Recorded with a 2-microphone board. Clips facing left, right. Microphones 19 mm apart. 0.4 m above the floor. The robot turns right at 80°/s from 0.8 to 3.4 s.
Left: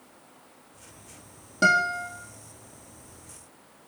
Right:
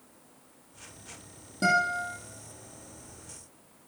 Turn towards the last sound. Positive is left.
turn(degrees=175)